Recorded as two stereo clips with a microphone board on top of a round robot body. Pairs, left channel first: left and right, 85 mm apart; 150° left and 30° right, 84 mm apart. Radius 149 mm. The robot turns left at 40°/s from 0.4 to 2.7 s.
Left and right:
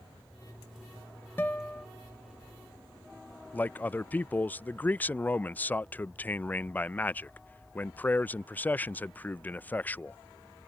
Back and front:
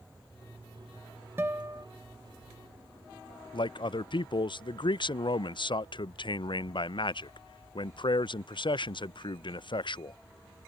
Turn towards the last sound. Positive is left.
turn(degrees=155)